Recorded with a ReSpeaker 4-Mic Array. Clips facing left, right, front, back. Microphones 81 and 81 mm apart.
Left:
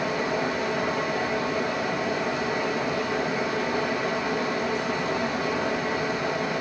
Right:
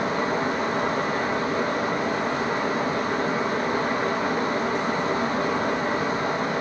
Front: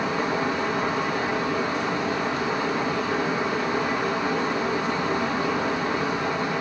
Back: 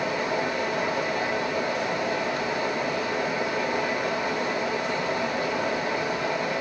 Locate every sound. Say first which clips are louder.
0.0 s running water: right 2 dB, front 2 dB; 50° right, 2.5 m